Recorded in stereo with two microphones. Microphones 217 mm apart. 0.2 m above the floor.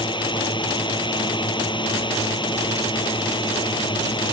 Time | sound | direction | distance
0.0 | a drone | 20° left (ahead or behind) | ?